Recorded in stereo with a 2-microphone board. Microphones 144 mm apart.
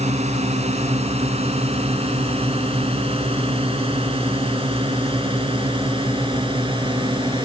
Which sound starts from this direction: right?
A drone, at 0.0 s.